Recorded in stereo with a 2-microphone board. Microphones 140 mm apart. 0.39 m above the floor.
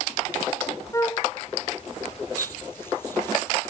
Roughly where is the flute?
Left.